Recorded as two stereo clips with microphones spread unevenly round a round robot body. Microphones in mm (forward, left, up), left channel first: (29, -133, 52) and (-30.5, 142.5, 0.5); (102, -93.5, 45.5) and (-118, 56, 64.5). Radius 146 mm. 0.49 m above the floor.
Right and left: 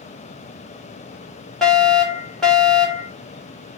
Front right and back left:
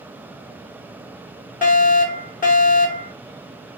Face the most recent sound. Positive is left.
turn(degrees=15)